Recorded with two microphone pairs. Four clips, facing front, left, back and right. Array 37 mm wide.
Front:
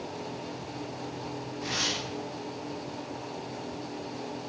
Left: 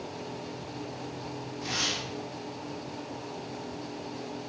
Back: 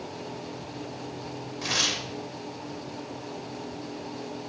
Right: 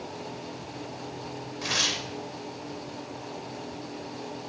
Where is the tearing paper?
130° right, 2 m.